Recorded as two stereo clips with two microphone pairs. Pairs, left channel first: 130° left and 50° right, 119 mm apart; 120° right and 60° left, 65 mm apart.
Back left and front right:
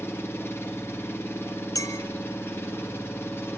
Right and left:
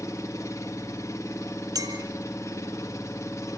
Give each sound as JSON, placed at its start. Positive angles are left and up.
{"t": 0.0, "sound": "an engine running", "azimuth_deg": -160, "distance_m": 2.0}
{"t": 1.8, "sound": "a clink", "azimuth_deg": 70, "distance_m": 1.7}